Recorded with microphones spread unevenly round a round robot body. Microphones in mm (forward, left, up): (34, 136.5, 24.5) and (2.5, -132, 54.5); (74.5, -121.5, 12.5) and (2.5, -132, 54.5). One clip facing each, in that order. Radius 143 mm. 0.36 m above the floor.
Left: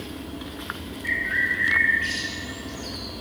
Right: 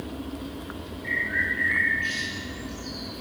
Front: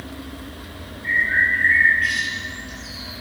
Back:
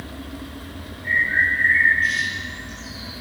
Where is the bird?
25° left, 7.5 m.